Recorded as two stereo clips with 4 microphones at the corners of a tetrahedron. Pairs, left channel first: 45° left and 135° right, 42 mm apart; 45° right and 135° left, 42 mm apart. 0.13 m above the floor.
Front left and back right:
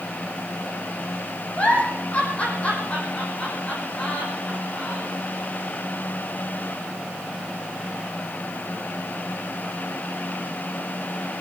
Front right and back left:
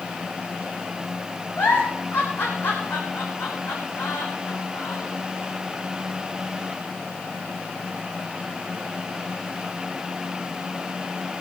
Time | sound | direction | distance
1.6 | a giggle | 15° right | 4 m